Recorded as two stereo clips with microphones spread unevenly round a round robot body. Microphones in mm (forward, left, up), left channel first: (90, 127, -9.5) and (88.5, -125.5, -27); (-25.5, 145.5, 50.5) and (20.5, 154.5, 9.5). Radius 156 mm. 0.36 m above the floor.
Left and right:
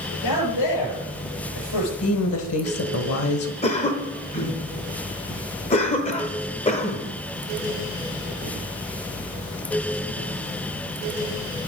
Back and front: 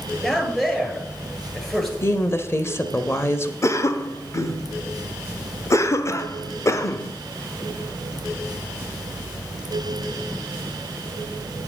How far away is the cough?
About 0.8 m.